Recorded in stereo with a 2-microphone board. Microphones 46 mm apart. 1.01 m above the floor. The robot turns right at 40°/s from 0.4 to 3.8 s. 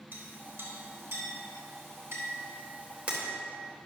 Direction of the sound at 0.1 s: 45° right (ahead or behind).